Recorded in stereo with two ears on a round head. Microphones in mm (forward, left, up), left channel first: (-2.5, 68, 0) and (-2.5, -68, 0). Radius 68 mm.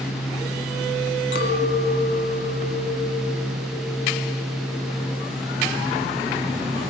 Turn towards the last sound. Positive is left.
turn(degrees=75)  # may be behind; listen again after turning